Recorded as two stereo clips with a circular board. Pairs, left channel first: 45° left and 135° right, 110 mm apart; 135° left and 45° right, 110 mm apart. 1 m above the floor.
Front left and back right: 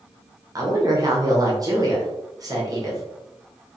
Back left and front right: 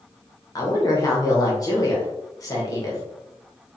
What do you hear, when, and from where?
0.6 s a woman speaking: straight behind, 1.2 m